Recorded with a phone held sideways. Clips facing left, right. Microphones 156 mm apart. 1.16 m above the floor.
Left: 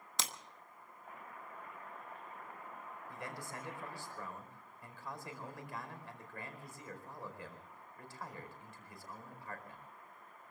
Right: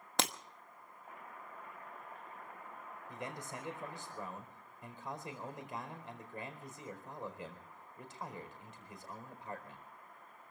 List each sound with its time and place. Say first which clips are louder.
0.2 s breaking glass: right 8 dB; 65° right (ahead or behind), 0.9 m
3.1 s a man speaking: right 2 dB; 20° right (ahead or behind), 4.5 m